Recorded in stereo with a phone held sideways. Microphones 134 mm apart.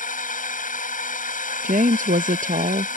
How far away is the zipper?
No zipper in this recording.